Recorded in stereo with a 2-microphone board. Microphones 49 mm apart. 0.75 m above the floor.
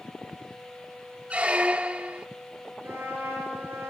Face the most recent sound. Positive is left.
turn(degrees=-65)  # may be behind; listen again after turning